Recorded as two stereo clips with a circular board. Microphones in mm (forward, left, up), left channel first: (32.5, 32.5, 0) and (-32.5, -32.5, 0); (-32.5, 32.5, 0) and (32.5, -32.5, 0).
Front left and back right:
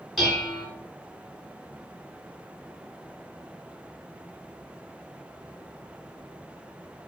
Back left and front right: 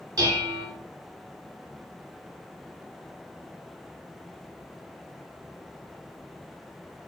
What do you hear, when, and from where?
0.2 s dishes clattering: 45° right, 1.0 m